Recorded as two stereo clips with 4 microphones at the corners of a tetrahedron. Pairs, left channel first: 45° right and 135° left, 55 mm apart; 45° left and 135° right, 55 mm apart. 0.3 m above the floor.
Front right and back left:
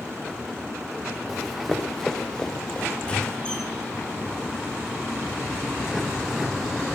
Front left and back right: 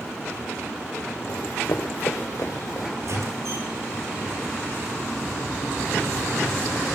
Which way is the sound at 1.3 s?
50° left.